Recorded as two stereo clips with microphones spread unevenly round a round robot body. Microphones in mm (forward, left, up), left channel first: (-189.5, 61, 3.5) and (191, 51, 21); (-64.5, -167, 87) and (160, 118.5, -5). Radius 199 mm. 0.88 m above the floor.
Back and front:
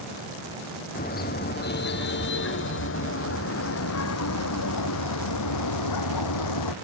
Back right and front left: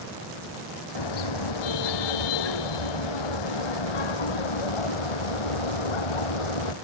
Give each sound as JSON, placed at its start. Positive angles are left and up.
{"t": 0.9, "sound": "a car horn", "azimuth_deg": -110}